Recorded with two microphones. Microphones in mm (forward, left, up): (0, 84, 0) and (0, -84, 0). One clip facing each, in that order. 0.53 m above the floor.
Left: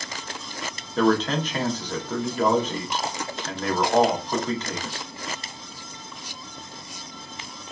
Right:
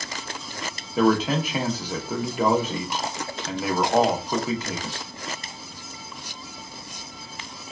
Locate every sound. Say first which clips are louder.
1.0 s a man speaking: right 1 dB; 10° right (ahead or behind), 0.6 m